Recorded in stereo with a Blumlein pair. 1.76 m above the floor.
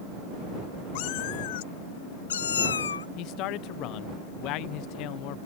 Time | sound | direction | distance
0.9 | a cat meowing | 45° left | ?
3.2 | a man speaking | 40° left | ?